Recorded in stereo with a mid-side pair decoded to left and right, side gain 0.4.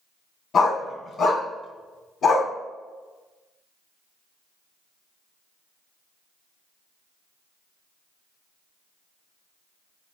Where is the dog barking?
60° left, 3 m; by 2.5 s 75° left, 2 m.